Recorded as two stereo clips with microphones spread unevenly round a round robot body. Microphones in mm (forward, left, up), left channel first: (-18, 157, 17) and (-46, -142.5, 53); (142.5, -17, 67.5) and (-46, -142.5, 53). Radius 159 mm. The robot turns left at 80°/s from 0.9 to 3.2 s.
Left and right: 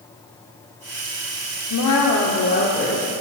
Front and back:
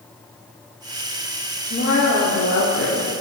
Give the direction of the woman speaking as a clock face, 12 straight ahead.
9 o'clock.